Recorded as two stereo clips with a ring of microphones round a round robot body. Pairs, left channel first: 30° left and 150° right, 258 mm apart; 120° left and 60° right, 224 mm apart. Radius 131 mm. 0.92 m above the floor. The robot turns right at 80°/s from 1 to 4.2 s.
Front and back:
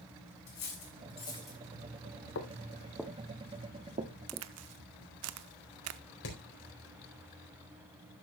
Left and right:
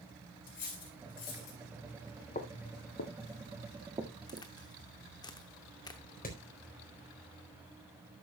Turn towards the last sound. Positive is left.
turn(degrees=70)